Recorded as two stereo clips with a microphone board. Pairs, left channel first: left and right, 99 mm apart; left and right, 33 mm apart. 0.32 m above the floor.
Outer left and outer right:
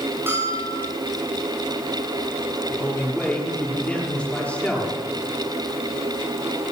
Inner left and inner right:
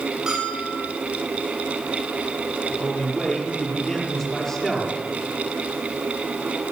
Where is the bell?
20° right (ahead or behind), 9.5 m.